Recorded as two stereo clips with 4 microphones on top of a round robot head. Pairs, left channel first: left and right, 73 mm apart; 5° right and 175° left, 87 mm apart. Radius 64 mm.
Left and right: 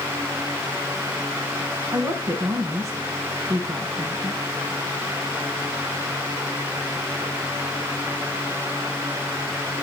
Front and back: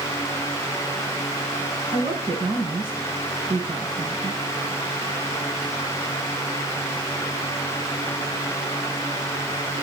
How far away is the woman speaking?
About 4 m.